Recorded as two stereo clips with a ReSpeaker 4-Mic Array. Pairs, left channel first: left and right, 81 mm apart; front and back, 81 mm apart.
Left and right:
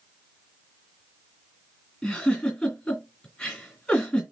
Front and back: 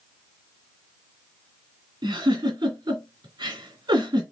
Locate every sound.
2.0 s a giggle: 165° left, 2 m